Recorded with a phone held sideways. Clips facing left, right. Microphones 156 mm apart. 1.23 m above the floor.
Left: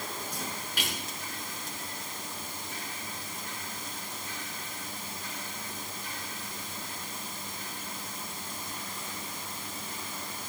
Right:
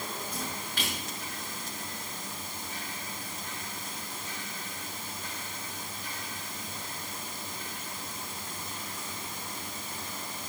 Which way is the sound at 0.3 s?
10° left (ahead or behind).